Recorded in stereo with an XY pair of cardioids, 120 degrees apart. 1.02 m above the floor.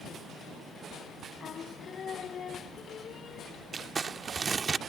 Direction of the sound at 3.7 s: 30° right.